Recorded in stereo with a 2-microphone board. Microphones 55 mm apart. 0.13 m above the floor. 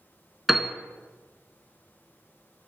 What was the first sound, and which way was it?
A piano, 5° right (ahead or behind).